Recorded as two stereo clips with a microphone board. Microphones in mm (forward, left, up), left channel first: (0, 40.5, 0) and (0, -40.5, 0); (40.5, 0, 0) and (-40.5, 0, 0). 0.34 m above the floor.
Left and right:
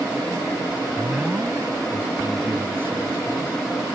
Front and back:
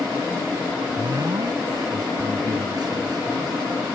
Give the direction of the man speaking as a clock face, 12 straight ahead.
6 o'clock.